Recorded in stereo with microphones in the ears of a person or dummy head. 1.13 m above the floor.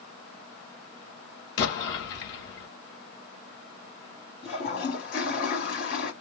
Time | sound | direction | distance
1.6 | an explosion | 65° left (ahead or behind) | 1.8 m
4.4 | a toilet flushing | 45° left (ahead or behind) | 1.7 m